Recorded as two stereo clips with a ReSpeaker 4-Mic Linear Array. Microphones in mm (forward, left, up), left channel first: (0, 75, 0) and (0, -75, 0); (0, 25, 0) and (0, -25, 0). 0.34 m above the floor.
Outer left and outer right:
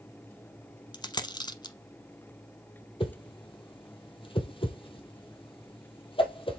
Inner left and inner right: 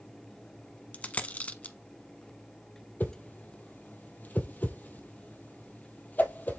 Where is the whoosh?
35° left (ahead or behind), 1.5 m.